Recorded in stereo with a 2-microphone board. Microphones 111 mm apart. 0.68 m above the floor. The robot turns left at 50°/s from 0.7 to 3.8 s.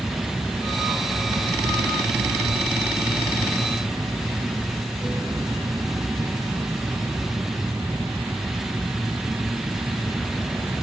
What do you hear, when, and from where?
0.0 s an aircraft: 10° right; by 10.8 s 165° right